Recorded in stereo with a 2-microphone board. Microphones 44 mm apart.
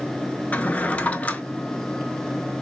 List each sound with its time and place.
0.5 s a drawer: 35° left (ahead or behind), 0.6 m